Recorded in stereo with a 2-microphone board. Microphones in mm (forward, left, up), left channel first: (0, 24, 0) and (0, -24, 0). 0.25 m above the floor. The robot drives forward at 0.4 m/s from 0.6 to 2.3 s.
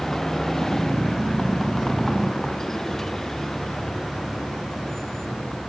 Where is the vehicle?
10° left (ahead or behind).